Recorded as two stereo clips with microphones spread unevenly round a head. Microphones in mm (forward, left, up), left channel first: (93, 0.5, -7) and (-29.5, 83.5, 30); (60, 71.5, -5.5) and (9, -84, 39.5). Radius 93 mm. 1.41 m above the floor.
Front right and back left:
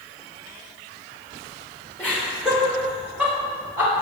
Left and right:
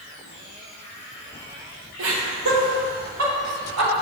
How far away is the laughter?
About 1.3 m.